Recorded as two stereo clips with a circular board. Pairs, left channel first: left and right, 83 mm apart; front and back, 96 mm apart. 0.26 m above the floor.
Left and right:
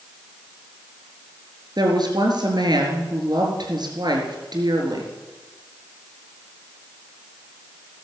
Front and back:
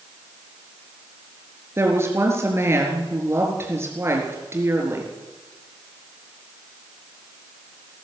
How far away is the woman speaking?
About 4 m.